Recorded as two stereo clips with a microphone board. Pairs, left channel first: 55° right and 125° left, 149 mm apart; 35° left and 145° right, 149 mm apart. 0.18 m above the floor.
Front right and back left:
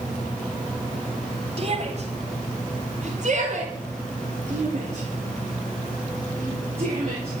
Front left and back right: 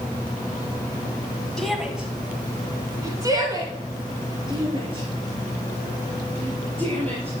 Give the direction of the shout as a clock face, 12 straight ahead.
8 o'clock.